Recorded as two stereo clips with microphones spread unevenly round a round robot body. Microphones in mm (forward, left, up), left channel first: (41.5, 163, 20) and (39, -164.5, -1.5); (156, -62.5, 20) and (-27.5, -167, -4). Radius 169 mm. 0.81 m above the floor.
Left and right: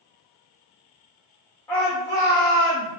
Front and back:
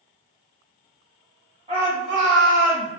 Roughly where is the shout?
Behind.